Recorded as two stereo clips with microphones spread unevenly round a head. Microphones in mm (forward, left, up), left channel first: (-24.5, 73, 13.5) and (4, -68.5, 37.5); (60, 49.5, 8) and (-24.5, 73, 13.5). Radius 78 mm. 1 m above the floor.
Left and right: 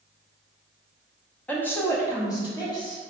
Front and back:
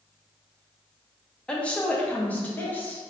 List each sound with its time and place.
1.5 s a woman speaking: 45° left, 0.8 m; by 3.0 s 50° left, 1.5 m